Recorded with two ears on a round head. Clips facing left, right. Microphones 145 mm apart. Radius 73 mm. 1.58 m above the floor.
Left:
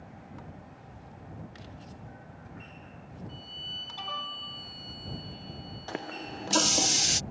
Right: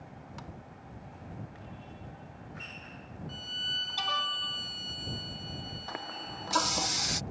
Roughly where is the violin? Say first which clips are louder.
Right 1 dB; right.